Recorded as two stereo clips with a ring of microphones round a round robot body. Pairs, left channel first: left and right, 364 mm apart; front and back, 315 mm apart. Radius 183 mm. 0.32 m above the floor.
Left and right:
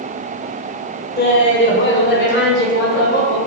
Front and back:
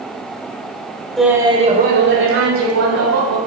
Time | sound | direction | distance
1.2 | laughter | 85° left | 1.1 m